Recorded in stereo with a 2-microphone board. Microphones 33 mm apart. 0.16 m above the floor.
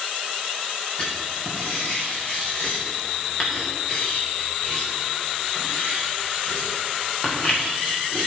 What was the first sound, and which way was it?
Writing, 30° left (ahead or behind).